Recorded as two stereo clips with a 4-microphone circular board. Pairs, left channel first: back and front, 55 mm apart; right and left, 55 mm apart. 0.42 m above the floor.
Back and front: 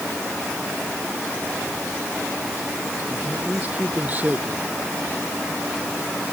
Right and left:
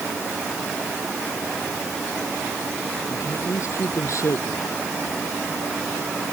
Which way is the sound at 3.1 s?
60° right.